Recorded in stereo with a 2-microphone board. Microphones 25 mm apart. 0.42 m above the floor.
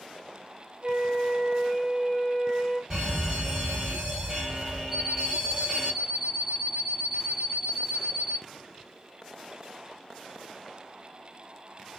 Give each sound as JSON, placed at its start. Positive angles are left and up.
{"t": 0.8, "sound": "a flute", "side_deg": -40, "distance_m": 1.9}
{"t": 2.9, "sound": "a fire alarm", "side_deg": -35, "distance_m": 3.5}
{"t": 4.9, "sound": "an alarm clock", "side_deg": -10, "distance_m": 2.5}